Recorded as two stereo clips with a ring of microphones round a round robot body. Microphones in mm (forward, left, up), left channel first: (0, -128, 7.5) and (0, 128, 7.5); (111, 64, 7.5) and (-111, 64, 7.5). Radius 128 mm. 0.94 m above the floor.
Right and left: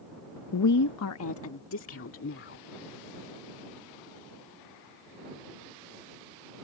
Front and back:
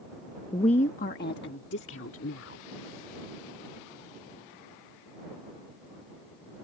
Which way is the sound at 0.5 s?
75° right.